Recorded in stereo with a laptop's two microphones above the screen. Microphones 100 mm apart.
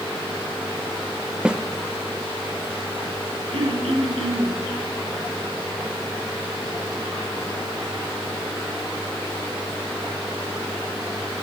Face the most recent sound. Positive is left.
turn(degrees=-85)